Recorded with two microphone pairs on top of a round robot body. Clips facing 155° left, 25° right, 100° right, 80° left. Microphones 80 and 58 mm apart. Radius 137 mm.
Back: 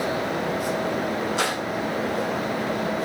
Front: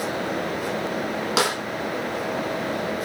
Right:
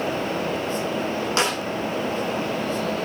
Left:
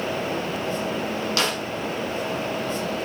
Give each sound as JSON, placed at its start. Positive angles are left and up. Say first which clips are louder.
{"t": 1.4, "sound": "a snare drum", "louder": "front 6 dB, right 2 dB", "azimuth_deg": -35, "distance_m": 9.5}